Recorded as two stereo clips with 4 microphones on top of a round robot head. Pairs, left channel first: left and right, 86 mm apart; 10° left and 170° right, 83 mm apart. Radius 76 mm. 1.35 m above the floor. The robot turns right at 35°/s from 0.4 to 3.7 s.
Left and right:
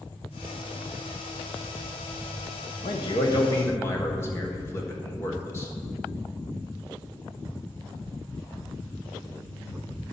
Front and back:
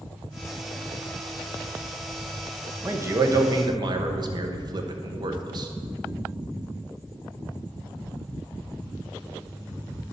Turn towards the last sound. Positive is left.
turn(degrees=155)